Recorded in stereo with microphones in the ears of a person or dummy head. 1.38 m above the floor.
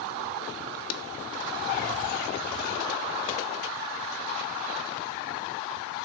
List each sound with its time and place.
0.9 s a clap: 85° left, 0.9 m